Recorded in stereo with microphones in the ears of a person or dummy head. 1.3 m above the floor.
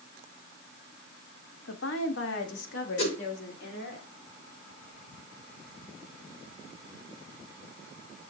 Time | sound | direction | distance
1.7 | a woman speaking | 75° left (ahead or behind) | 1.6 m
3.0 | a whoosh | 85° left | 5.5 m